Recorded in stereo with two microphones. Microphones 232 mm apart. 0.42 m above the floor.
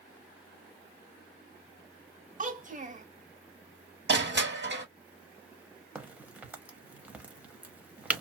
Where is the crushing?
50° right (ahead or behind), 1.6 m.